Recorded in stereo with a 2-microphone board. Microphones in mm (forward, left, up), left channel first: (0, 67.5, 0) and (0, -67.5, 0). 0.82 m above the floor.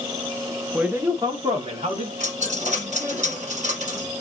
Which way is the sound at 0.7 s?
5° right (ahead or behind).